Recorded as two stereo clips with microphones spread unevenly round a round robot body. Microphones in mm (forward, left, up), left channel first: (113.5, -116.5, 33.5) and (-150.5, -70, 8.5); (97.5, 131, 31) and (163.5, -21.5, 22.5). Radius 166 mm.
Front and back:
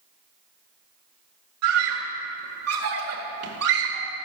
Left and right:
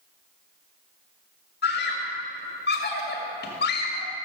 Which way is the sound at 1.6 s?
140° left.